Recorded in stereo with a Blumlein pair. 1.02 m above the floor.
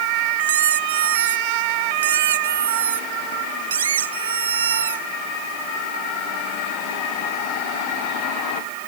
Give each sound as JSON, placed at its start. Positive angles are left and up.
{"t": 0.4, "sound": "a squeak", "azimuth_deg": -65}